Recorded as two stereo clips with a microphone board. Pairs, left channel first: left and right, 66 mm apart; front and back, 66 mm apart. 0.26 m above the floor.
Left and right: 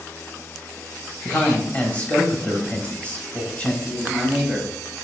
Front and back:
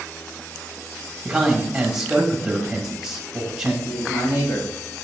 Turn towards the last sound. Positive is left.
turn(degrees=10)